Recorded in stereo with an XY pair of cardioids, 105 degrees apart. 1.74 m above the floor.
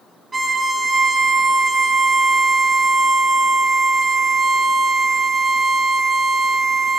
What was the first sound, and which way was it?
A violin, 25° right.